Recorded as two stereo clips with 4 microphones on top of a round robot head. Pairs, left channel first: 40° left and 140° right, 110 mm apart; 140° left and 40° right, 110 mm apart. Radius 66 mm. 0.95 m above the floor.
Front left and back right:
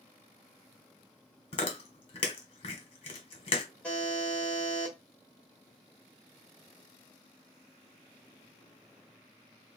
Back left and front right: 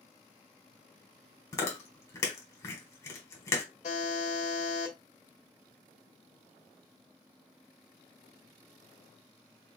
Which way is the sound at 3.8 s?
120° left.